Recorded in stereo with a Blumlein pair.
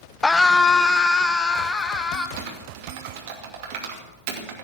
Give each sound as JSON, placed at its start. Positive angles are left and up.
{"t": 0.2, "sound": "a scream", "azimuth_deg": 5, "distance_m": 0.5}
{"t": 2.4, "sound": "typing on a keyboard", "azimuth_deg": -45, "distance_m": 2.5}